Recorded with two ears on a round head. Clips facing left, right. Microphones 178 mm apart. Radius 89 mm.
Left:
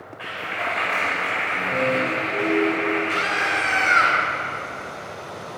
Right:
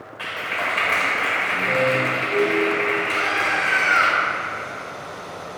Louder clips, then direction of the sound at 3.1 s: Right 1 dB; 45° left (ahead or behind).